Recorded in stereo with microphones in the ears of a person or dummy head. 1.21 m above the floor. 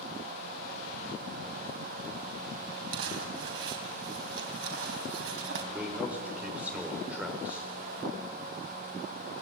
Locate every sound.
2.9 s crumpling: 75° right (ahead or behind), 4 m
5.7 s a man speaking: 15° right (ahead or behind), 4 m